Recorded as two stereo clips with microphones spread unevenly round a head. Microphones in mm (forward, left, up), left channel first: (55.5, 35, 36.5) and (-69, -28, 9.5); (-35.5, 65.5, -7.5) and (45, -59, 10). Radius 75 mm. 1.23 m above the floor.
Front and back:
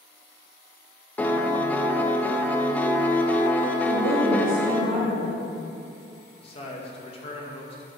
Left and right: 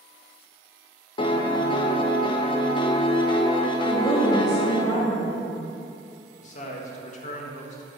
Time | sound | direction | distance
1.2 | a piano | 115° left | 0.5 m
3.9 | a woman speaking | 170° right | 1.6 m
6.4 | a man speaking | 80° left | 1.1 m